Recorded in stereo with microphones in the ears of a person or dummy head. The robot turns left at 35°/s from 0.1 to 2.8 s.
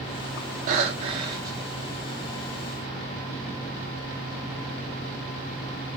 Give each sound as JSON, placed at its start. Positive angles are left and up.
{"t": 0.7, "sound": "breathing", "azimuth_deg": -130, "distance_m": 0.8}